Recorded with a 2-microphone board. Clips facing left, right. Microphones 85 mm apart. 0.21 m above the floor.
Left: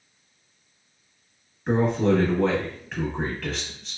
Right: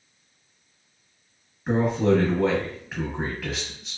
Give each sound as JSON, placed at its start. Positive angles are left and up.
{"t": 1.7, "sound": "a man speaking", "side_deg": -5, "distance_m": 1.1}